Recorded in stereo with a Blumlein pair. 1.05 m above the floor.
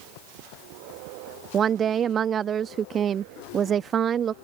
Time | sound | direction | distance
1.5 | a woman speaking | 25° right | ?